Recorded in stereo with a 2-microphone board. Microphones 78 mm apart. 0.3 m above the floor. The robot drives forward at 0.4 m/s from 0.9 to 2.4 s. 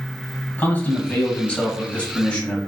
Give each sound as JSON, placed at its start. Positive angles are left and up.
{"t": 0.6, "sound": "a man speaking", "side_deg": 25, "distance_m": 1.6}